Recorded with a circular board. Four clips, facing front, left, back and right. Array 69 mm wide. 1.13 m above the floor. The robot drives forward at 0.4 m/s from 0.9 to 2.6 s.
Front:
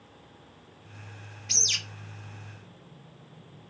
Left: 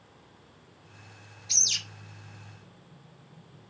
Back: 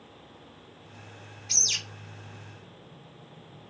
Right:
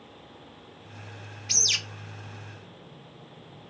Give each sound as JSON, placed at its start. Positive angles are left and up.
{"t": 1.5, "sound": "a bird", "azimuth_deg": -65, "distance_m": 0.5}